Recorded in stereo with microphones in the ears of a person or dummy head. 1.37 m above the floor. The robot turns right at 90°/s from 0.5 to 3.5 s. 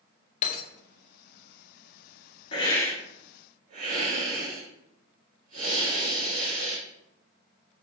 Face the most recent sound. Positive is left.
turn(degrees=-135)